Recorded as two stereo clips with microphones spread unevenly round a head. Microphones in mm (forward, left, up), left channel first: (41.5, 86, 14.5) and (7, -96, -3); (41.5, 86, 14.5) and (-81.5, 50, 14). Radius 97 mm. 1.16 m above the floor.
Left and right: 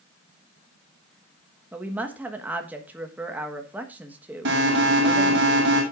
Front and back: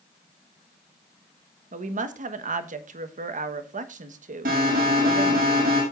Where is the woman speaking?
175° left, 1.3 m.